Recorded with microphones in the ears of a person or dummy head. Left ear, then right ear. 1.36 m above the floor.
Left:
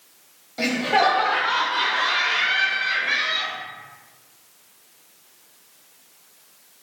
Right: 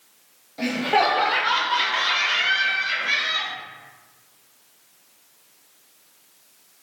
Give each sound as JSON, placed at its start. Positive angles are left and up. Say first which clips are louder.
{"t": 0.6, "sound": "laughter", "louder": "left 1 dB", "side_deg": 15, "distance_m": 0.6}